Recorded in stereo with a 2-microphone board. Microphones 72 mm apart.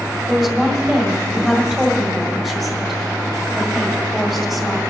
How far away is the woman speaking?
About 2 m.